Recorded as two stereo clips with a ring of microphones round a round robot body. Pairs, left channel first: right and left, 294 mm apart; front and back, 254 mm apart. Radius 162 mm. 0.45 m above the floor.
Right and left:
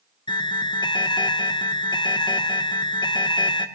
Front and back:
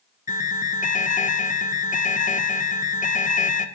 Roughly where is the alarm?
Ahead right.